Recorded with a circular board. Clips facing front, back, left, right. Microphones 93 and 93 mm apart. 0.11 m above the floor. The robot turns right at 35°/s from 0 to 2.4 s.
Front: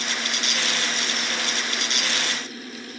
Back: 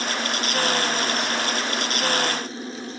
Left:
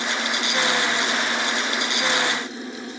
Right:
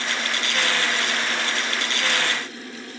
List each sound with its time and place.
Only background noise.